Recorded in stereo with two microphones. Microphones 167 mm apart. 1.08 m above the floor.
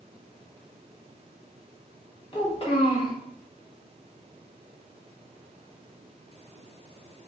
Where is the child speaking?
35° left (ahead or behind), 1.2 m.